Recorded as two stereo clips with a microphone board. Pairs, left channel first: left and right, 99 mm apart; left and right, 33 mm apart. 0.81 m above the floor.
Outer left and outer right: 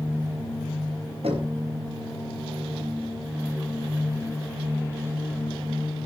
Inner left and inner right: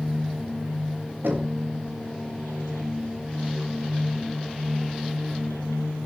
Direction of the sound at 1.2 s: 85° right.